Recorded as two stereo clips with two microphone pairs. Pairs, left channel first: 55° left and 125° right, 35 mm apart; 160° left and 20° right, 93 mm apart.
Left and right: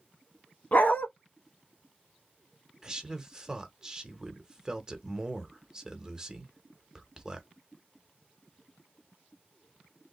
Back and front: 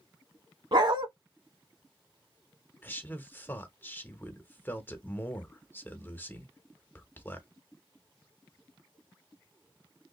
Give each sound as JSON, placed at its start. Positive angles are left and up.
{"t": 0.7, "sound": "a dog barking", "azimuth_deg": 10, "distance_m": 0.8}
{"t": 2.8, "sound": "a man speaking", "azimuth_deg": -165, "distance_m": 0.8}